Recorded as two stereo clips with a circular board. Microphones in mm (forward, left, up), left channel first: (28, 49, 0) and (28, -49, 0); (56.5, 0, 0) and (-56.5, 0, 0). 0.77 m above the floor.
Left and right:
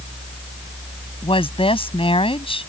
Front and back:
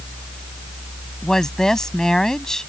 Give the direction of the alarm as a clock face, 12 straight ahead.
I don't hear an alarm.